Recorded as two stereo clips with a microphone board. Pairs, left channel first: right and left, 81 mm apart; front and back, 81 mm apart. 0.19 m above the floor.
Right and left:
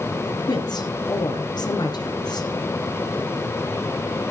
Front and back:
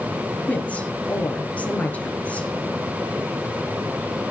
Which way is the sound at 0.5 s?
70° right.